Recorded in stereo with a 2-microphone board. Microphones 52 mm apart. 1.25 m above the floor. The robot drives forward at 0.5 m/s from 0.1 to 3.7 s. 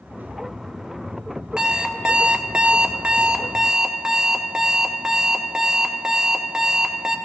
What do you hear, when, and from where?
1.6 s an alarm clock: 15° right (ahead or behind), 0.7 m